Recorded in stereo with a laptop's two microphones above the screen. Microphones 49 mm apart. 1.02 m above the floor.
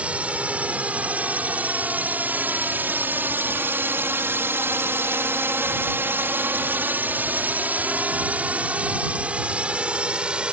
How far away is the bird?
I don't hear a bird.